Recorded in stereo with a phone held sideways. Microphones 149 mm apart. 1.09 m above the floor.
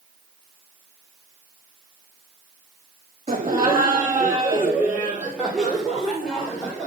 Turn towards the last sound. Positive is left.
turn(degrees=5)  # may be behind; listen again after turning